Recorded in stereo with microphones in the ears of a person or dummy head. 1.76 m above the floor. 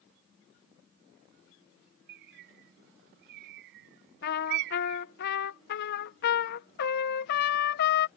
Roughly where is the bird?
Right.